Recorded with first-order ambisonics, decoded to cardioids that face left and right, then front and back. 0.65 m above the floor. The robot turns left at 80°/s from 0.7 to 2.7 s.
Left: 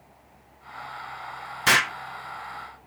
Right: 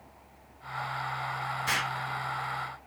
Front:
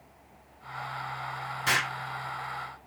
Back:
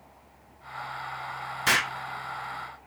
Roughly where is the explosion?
Left.